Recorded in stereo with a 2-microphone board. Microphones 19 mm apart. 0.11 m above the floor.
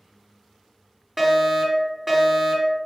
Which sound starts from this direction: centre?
A fire alarm, at 1.2 s.